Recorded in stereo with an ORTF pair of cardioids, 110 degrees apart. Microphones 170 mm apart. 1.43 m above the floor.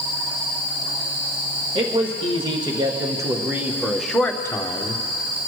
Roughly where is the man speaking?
Ahead right.